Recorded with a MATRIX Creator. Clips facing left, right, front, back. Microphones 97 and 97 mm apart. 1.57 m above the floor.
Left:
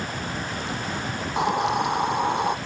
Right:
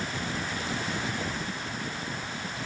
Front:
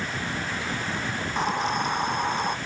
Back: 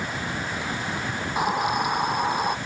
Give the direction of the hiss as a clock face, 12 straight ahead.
9 o'clock.